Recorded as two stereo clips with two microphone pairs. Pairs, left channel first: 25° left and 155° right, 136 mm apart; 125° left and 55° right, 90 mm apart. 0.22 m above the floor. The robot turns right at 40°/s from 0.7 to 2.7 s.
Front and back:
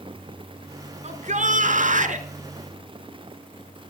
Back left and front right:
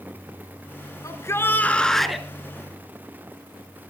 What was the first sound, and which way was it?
A shout, 175° left.